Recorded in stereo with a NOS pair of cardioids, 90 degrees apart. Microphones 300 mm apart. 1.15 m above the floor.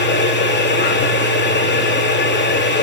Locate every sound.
0.0 s a machine running: 35° left, 3 m